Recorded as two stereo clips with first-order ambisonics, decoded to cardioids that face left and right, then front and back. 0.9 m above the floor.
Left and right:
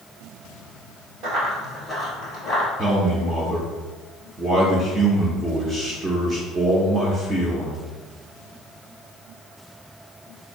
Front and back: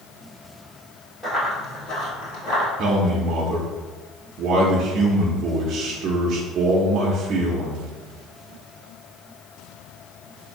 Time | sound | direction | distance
1.2 | running footsteps | 75° right | 1.2 m
2.8 | a man speaking | 160° right | 0.6 m